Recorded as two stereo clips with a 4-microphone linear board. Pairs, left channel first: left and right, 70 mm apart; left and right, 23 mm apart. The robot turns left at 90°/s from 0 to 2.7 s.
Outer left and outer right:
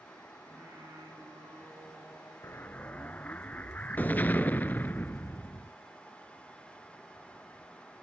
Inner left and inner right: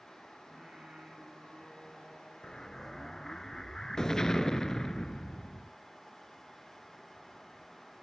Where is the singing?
25° right, 6.5 m; by 2.3 s 165° left, 6.5 m.